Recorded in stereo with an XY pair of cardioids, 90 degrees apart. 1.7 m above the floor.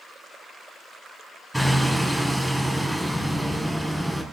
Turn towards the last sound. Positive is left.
turn(degrees=-5)